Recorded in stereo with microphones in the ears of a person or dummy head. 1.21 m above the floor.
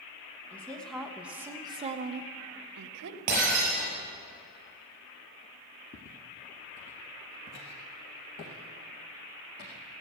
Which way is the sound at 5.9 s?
35° left (ahead or behind).